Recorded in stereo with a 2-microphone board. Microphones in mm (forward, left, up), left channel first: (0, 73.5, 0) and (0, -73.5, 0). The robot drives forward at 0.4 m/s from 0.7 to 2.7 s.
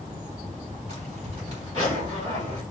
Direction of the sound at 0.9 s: 50° right (ahead or behind).